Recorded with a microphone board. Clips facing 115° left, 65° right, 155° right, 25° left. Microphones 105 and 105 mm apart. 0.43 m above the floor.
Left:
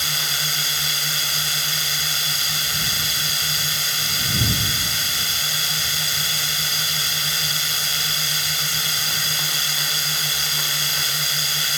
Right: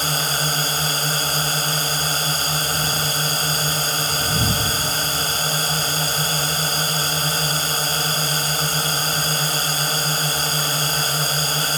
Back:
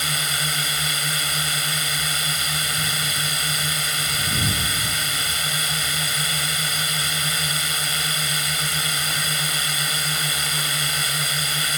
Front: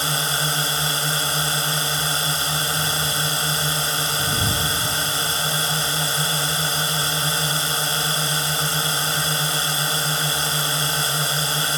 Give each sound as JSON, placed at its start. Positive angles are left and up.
{"t": 0.0, "sound": "a drone", "azimuth_deg": -30}